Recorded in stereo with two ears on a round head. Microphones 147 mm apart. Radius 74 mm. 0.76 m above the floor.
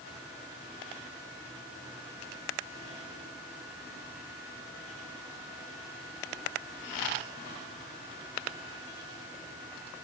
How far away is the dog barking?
No dog barking in this recording.